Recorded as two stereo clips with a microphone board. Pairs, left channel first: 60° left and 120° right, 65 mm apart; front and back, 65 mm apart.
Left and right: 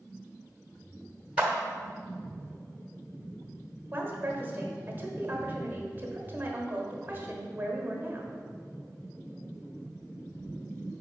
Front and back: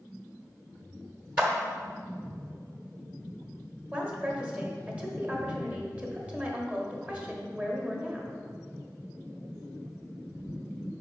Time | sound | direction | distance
1.4 | a clap | 140° right | 1.1 m
3.9 | a woman speaking | 135° right | 1.1 m